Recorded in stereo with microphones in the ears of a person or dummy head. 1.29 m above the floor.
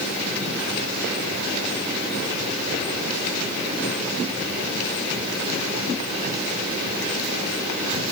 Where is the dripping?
No dripping in this recording.